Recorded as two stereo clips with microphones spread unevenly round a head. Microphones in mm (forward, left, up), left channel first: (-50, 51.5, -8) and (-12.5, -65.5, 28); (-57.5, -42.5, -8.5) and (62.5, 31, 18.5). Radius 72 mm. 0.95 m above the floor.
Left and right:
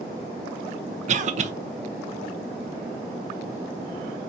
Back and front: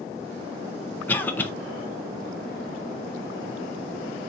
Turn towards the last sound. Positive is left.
turn(degrees=-90)